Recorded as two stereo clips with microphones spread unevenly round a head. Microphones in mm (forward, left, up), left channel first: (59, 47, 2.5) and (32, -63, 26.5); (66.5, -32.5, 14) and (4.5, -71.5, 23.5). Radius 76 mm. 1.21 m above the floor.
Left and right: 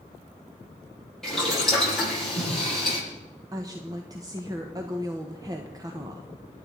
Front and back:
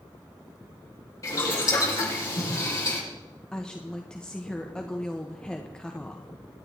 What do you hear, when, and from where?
1.2 s boiling: 10° right, 9.5 m
3.5 s a woman speaking: 45° right, 1.4 m